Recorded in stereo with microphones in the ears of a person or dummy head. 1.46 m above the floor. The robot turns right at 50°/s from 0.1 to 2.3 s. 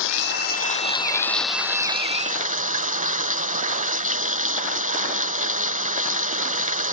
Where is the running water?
110° left; by 7.0 s 140° right.